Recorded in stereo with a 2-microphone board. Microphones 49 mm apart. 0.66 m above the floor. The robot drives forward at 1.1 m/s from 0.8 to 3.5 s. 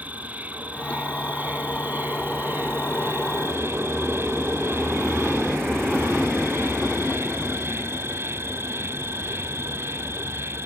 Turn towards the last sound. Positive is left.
turn(degrees=-60)  # may be behind; listen again after turning